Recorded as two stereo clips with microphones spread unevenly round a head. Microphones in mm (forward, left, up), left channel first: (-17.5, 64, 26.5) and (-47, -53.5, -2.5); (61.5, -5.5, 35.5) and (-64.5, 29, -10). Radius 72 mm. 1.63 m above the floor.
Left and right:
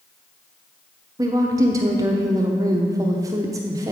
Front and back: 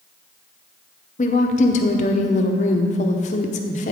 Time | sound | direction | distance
1.2 | a woman speaking | 30° right | 0.8 m